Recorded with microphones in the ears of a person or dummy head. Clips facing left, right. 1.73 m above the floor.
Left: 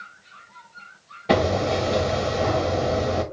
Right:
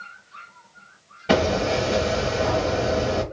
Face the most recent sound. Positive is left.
turn(degrees=-5)  # may be behind; listen again after turning